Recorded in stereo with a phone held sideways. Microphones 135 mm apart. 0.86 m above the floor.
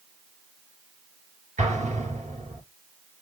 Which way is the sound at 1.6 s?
60° right (ahead or behind).